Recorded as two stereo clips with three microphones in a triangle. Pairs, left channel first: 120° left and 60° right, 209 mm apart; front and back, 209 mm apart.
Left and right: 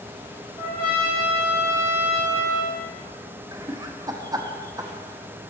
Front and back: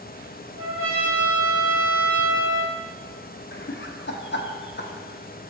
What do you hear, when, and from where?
0.6 s a trumpet: 175° left, 3 m
3.5 s laughter: 10° left, 0.8 m